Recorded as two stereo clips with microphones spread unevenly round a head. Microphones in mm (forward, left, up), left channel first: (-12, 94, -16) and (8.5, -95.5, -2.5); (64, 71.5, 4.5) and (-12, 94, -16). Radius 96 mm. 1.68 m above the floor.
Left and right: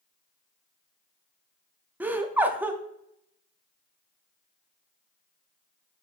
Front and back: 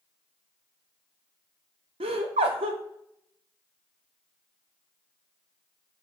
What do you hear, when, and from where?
2.0 s laughter: 165° right, 0.5 m